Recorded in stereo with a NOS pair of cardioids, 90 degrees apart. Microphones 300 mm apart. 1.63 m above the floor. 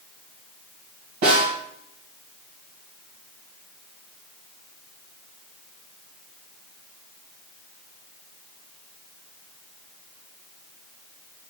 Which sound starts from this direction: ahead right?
A snare drum, at 1.2 s.